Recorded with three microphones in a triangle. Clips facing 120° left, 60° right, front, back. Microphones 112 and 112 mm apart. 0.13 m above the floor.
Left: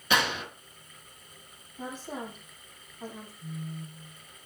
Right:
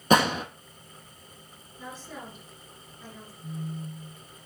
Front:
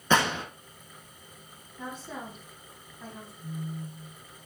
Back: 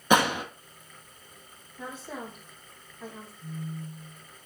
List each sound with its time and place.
0.1 s a gunshot: 105° right, 1.0 m
1.8 s a woman speaking: 95° left, 5 m
3.4 s a phone buzzing: 85° left, 3 m